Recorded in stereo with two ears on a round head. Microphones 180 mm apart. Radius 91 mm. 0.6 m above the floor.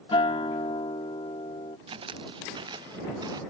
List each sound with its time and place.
0.1 s a guitar: 25° left (ahead or behind)
1.9 s footsteps: 25° right (ahead or behind); by 3.4 s 20° right (ahead or behind)